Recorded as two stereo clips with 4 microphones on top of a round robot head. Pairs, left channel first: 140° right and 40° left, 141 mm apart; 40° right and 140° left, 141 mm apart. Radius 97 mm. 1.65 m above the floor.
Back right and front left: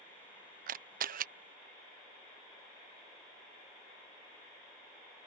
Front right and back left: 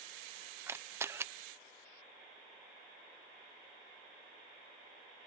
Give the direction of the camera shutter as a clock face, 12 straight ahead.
10 o'clock.